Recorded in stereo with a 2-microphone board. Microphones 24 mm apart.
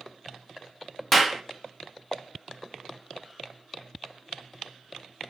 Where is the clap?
5° left (ahead or behind), 1.2 m.